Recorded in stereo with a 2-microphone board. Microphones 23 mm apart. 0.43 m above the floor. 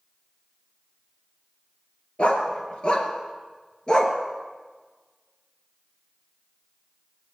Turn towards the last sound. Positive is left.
turn(degrees=25)  # may be behind; listen again after turning